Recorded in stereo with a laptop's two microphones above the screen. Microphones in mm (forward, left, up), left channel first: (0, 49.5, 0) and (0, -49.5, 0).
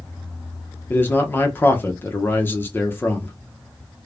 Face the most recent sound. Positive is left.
turn(degrees=20)  # may be behind; listen again after turning